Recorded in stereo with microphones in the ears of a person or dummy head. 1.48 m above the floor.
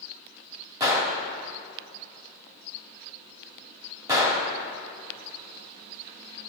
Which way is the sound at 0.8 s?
15° right (ahead or behind).